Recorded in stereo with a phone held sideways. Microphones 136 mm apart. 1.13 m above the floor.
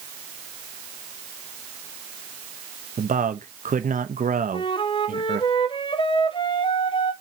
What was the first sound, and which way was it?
A man speaking, 80° right.